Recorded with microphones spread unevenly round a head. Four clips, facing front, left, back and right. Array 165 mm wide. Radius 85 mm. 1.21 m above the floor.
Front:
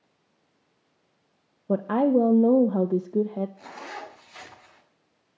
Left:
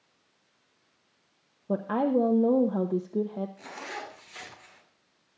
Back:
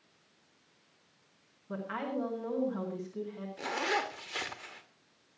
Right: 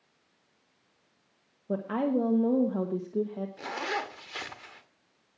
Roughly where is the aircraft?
No aircraft in this recording.